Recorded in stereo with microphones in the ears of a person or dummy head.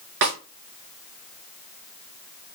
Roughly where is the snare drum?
Right.